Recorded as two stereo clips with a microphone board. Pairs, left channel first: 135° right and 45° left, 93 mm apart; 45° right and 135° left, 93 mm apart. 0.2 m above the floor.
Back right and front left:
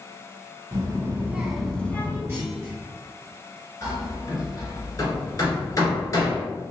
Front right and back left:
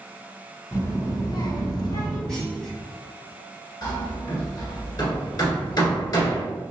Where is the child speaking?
5° left, 1.3 m; by 2.2 s 80° right, 1.3 m.